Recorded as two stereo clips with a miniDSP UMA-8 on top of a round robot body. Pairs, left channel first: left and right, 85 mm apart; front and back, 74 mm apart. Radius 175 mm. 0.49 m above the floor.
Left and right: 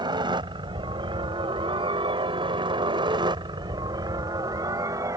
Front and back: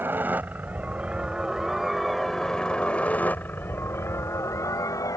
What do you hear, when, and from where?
0.0 s a helicopter: 120° right; by 5.2 s 40° right